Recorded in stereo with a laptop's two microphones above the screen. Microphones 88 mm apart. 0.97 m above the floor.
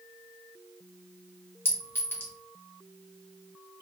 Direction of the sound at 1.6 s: 25° left (ahead or behind).